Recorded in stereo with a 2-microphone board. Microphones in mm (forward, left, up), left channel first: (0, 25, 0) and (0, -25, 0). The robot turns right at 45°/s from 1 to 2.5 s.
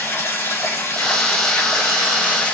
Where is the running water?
75° left, 3.5 m; by 2.5 s 145° left, 3.5 m.